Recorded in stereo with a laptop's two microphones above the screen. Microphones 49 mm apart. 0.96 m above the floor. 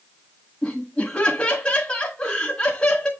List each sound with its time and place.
0.6 s laughter: 15° left (ahead or behind), 1.5 m